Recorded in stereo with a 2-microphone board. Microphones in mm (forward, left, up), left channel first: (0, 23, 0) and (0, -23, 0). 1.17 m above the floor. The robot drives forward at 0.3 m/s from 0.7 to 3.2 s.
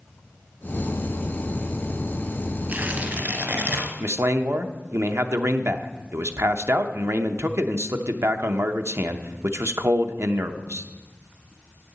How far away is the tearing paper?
About 1.6 m.